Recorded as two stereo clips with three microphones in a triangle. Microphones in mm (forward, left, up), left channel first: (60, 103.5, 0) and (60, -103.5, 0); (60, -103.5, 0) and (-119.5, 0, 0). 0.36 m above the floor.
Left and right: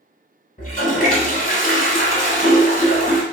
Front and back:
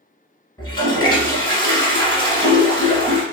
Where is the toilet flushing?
35° left, 1.1 m.